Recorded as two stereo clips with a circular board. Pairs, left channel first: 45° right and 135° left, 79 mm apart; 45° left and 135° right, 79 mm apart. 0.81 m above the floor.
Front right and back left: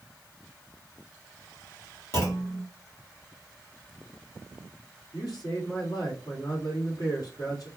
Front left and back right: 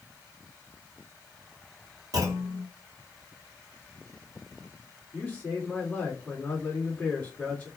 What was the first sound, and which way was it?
A clunk, 95° right.